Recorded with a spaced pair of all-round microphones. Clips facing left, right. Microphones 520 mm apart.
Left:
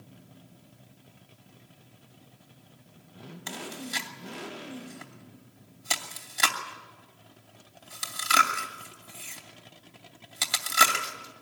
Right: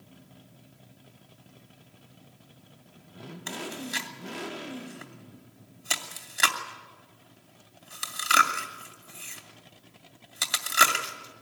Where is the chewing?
25° left (ahead or behind), 2.5 m.